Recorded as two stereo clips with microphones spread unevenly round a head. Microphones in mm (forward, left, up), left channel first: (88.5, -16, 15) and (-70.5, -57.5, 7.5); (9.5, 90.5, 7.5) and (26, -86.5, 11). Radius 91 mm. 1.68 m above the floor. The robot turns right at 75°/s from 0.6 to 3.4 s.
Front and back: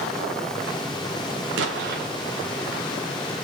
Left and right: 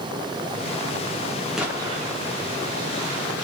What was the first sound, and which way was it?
An explosion, 170° right.